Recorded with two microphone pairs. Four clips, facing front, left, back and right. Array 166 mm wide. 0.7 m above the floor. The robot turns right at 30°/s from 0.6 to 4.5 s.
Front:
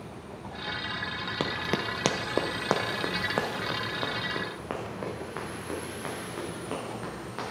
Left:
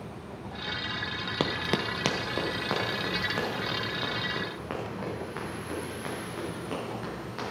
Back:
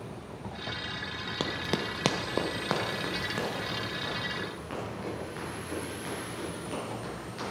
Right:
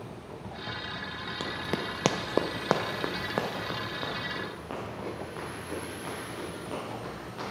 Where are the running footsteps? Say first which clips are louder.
Left 4 dB, front 1 dB; 85° left, 0.8 m; by 7.5 s straight ahead, 7.5 m.